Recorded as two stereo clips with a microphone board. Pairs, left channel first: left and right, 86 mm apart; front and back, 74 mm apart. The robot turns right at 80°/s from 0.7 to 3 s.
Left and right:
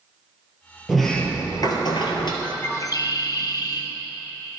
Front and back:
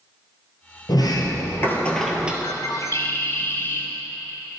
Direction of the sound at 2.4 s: 10° left.